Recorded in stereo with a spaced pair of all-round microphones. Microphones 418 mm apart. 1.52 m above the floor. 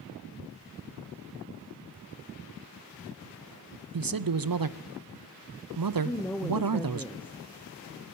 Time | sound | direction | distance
3.9 | a man speaking | 55° right (ahead or behind) | 0.6 m
6.0 | a woman speaking | 5° left (ahead or behind) | 0.7 m